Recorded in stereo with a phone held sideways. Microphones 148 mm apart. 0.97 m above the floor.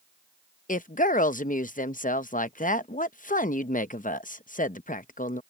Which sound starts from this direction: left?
A woman speaking, at 0.7 s.